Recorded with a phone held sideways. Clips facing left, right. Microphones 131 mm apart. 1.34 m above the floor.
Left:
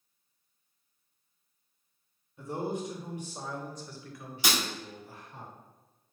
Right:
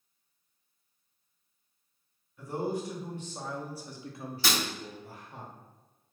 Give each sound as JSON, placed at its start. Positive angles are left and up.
{"t": 2.4, "sound": "a man speaking", "side_deg": 25, "distance_m": 1.1}
{"t": 4.4, "sound": "breaking glass", "side_deg": 15, "distance_m": 1.0}